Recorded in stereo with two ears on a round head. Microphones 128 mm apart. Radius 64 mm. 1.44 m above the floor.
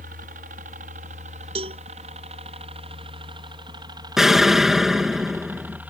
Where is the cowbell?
40° right (ahead or behind).